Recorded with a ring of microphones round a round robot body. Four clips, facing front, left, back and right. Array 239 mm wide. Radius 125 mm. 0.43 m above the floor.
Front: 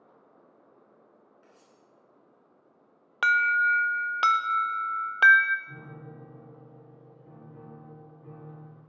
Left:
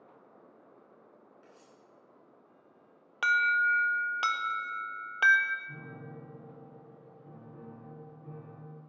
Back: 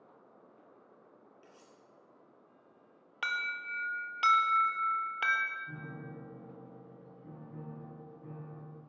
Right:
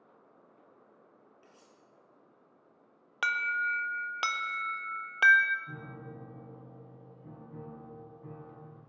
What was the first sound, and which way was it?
Cutlery clinking, 135° right.